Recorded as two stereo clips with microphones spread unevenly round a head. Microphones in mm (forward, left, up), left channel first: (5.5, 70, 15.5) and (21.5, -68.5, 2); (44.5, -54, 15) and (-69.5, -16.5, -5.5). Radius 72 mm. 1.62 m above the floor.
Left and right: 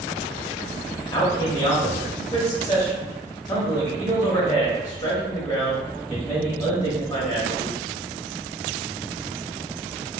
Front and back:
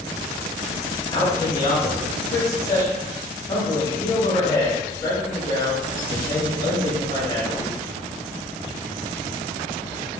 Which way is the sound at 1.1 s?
40° left.